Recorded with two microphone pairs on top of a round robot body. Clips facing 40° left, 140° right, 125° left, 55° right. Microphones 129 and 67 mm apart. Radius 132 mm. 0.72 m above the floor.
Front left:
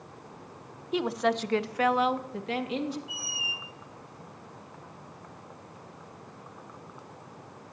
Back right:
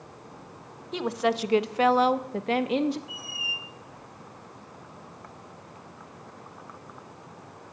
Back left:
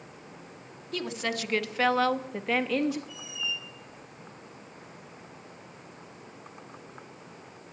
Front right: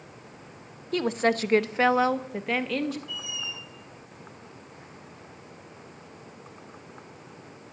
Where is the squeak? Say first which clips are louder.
Even, even; 20° right, 1.0 m.